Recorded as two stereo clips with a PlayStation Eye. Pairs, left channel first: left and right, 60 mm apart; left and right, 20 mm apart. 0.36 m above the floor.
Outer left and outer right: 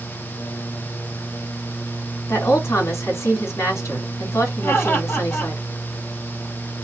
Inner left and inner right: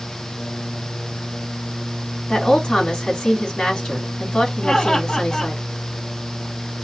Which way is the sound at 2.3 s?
50° left (ahead or behind).